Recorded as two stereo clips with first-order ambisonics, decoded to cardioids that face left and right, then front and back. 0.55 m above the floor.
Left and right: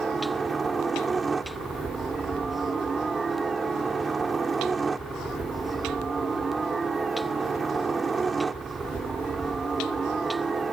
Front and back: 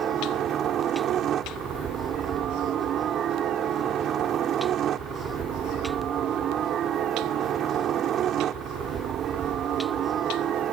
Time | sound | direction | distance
0.0 | a helicopter | 155° right | ?